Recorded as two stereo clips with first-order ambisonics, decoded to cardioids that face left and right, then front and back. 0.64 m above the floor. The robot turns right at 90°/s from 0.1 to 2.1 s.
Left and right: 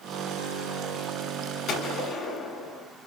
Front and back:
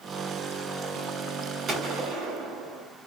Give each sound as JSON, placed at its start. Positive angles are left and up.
{"t": 1.7, "sound": "a gunshot", "azimuth_deg": 130, "distance_m": 1.7}